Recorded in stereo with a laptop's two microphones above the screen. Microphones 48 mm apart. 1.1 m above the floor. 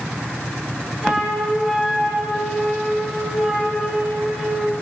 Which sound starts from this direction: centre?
A flute, at 1.0 s.